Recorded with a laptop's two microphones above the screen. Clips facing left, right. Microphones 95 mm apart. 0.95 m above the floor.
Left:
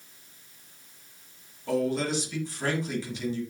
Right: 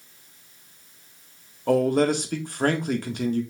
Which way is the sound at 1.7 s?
60° right (ahead or behind).